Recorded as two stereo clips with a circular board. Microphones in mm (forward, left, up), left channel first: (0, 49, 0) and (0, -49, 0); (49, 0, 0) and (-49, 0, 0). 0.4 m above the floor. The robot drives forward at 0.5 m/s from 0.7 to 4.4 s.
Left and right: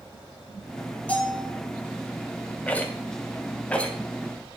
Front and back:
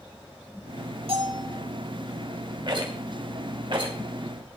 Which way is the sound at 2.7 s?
160° left.